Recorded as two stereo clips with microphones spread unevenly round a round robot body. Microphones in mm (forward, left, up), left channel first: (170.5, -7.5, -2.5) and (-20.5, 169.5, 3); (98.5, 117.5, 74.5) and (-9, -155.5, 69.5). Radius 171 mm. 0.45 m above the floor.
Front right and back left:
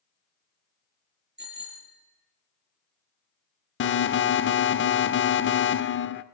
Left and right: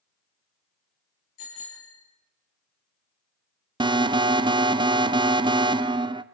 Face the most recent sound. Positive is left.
turn(degrees=-45)